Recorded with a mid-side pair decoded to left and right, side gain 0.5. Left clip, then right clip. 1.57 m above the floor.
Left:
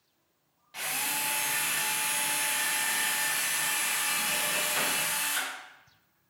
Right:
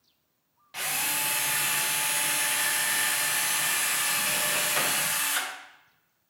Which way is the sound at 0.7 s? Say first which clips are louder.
Right 2 dB; 30° right.